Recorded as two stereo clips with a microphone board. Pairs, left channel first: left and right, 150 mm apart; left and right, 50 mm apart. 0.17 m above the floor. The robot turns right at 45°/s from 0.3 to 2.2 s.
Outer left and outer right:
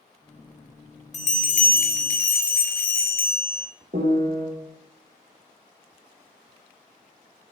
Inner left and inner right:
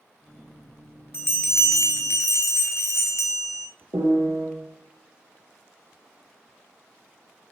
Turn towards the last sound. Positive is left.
turn(degrees=-70)  # may be behind; listen again after turning